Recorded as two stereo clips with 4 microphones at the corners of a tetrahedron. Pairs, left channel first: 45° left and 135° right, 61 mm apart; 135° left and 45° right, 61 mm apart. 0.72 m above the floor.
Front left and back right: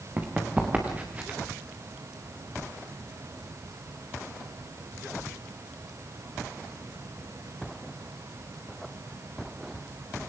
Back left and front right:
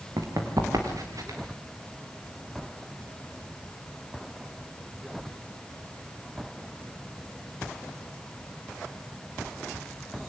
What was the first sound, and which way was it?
Running footsteps, 70° right.